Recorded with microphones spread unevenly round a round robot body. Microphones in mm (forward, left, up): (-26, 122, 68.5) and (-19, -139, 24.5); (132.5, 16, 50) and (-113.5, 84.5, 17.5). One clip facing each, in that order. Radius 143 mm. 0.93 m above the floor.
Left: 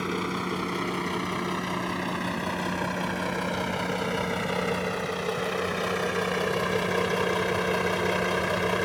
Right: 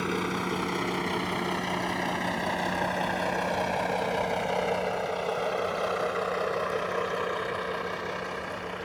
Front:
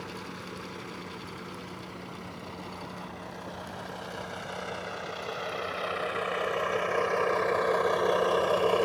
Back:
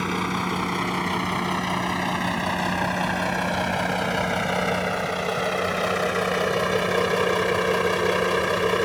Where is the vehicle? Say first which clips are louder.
Even, back 14 dB; 175° left; by 8.8 s 100° left.